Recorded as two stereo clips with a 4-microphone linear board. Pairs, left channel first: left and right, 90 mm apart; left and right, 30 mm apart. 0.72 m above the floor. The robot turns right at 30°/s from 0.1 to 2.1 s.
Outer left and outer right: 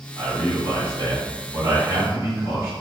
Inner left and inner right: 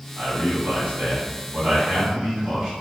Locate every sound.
0.2 s a man speaking: 85° right, 1.3 m; by 2.7 s 30° right, 1.3 m